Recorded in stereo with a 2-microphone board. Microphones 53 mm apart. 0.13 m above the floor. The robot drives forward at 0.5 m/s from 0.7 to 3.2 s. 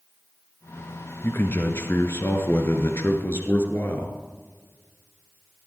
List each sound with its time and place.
1.2 s a man speaking: 45° left (ahead or behind), 1.9 m; by 4.2 s 50° left (ahead or behind), 1.9 m